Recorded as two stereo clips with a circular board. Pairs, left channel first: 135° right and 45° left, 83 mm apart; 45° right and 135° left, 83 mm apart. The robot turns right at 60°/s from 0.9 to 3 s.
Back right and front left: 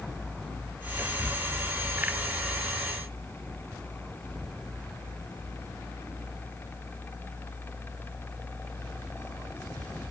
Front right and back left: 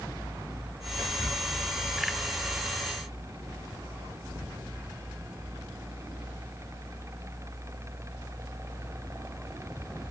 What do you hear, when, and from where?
1.0 s whispering: straight ahead, 1.6 m; by 1.4 s 25° left, 1.6 m